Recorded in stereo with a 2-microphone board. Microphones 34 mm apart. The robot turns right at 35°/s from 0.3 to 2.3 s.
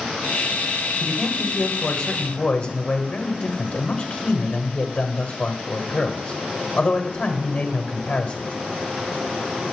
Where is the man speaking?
5° left, 1.6 m; by 8.6 s 50° left, 1.6 m.